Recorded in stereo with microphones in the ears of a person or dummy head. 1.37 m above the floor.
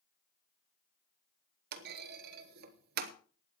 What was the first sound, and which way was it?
A clunk, 50° right (ahead or behind).